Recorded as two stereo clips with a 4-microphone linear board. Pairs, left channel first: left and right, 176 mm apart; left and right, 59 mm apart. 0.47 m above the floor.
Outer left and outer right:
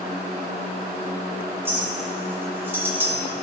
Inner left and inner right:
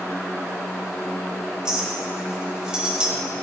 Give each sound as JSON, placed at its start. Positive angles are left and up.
{"t": 1.6, "sound": "a clink", "side_deg": -15, "distance_m": 1.6}